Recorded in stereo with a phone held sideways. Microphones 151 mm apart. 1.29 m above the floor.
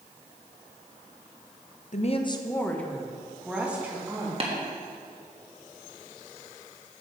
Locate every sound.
1.9 s a woman speaking: 55° left (ahead or behind), 0.6 m; by 4.3 s 15° right (ahead or behind), 2 m
4.4 s tapping: 40° right (ahead or behind), 1.5 m